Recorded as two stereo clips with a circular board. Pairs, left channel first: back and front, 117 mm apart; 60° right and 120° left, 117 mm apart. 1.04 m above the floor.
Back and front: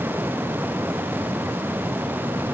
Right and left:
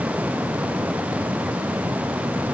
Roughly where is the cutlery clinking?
No cutlery clinking in this recording.